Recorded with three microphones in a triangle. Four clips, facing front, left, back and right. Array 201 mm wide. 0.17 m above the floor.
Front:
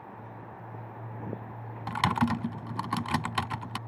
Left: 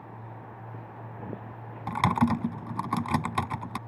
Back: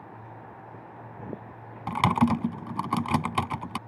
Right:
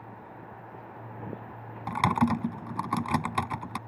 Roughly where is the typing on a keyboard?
Behind.